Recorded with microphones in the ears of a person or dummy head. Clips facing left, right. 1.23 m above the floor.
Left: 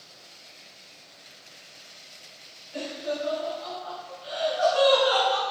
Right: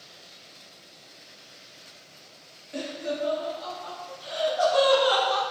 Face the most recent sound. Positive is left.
turn(degrees=-75)  # may be behind; listen again after turning